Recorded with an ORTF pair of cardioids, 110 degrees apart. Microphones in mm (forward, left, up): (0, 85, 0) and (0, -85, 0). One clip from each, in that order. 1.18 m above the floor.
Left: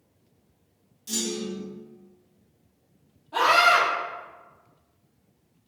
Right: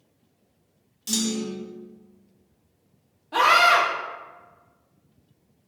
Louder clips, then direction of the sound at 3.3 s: Right 2 dB; 50° right.